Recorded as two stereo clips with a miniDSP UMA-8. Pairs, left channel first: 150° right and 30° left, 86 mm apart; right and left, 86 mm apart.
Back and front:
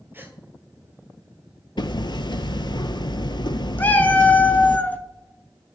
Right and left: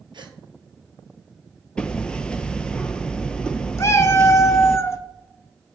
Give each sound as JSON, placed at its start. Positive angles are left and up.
{"t": 0.1, "sound": "a gasp", "azimuth_deg": 95, "distance_m": 0.9}
{"t": 1.8, "sound": "hammering", "azimuth_deg": -170, "distance_m": 0.5}
{"t": 3.8, "sound": "a cat meowing", "azimuth_deg": -95, "distance_m": 0.6}